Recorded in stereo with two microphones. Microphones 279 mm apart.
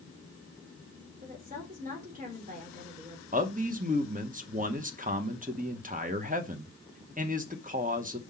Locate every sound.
1.2 s a woman speaking: 30° right (ahead or behind), 3 m
3.3 s a man speaking: 25° right (ahead or behind), 1.0 m